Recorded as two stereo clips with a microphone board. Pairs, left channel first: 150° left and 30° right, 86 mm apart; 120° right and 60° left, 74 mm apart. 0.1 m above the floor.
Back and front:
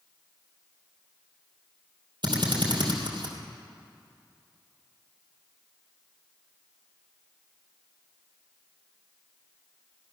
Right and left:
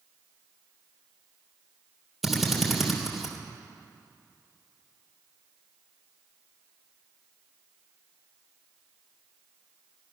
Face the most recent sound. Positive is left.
turn(degrees=-25)